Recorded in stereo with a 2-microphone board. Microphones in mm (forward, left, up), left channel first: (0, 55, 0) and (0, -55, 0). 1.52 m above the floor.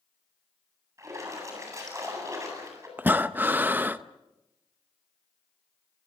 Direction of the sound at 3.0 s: 20° right (ahead or behind).